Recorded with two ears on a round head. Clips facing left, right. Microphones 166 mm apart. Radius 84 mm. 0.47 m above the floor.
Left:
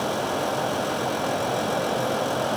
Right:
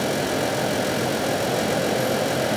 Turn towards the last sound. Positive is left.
No sound to turn to.